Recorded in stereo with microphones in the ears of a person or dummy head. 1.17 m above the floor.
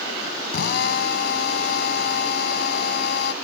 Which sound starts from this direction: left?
A drill, at 0.5 s.